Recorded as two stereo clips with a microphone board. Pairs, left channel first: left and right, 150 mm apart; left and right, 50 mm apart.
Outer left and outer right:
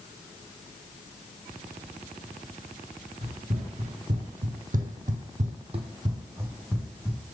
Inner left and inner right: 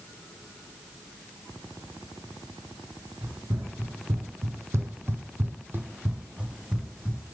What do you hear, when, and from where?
3.2 s running footsteps: 45° right (ahead or behind), 1.3 m; by 7.2 s 5° right (ahead or behind), 1.1 m